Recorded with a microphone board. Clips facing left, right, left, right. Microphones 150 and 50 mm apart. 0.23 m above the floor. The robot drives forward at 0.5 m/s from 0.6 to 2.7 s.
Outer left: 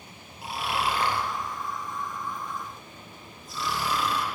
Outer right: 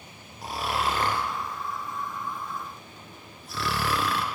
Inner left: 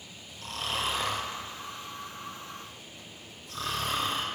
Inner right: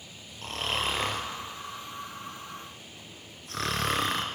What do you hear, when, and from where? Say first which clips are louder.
0.4 s snoring: outer right 1 dB, inner right 2 dB; 40° right (ahead or behind), 1.6 m; by 4.2 s 75° right (ahead or behind), 1.1 m